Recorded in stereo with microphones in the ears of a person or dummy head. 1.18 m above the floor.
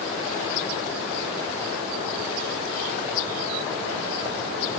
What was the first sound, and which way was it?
Only background noise.